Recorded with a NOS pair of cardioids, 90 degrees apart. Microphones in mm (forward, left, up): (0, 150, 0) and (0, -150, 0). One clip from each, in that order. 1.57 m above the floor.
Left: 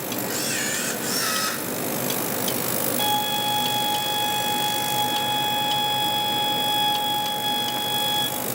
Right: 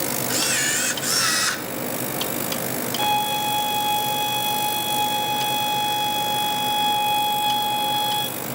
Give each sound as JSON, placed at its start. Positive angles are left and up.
{"t": 0.3, "sound": "a camera shutter", "azimuth_deg": -35, "distance_m": 1.2}
{"t": 3.0, "sound": "a violin", "azimuth_deg": -20, "distance_m": 3.0}